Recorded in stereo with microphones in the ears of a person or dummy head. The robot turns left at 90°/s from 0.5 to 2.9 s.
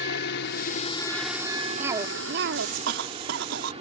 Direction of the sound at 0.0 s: 70° left.